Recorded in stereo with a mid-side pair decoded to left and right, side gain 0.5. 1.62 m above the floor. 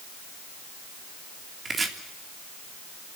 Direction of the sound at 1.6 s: 30° right.